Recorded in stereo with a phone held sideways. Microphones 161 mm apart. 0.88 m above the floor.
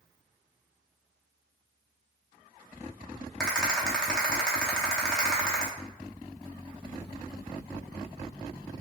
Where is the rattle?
5° left (ahead or behind), 0.7 m.